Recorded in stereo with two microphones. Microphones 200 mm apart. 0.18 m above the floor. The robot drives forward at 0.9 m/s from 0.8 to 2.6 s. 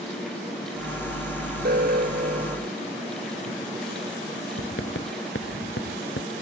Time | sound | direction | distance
1.6 | an alarm | 55° right (ahead or behind) | ?
4.6 | writing | 70° left (ahead or behind) | ?